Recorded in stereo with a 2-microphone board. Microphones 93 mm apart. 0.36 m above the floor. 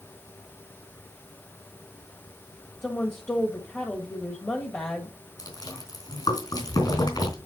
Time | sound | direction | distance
2.8 | a woman speaking | 20° left (ahead or behind) | 1.5 m
5.4 | chewing | 45° left (ahead or behind) | 3.5 m